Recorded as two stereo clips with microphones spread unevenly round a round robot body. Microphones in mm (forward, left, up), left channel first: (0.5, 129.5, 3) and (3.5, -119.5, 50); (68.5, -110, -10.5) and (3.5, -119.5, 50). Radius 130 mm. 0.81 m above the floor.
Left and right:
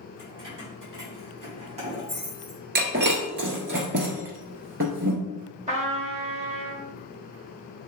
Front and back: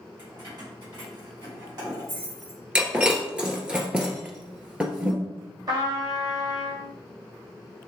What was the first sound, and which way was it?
Keys jangling, 160° right.